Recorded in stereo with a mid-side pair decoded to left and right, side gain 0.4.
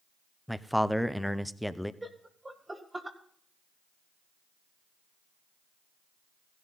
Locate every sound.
0.5 s a man speaking: straight ahead, 0.8 m
2.0 s laughter: 20° right, 1.5 m